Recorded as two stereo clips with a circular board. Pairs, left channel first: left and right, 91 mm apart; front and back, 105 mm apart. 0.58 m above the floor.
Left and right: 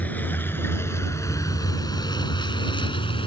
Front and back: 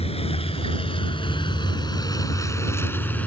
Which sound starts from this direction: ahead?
A vehicle, at 0.0 s.